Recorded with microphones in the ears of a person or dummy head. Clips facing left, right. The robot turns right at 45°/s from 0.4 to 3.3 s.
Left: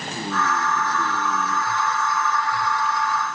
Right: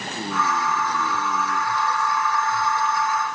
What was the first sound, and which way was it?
Only background noise.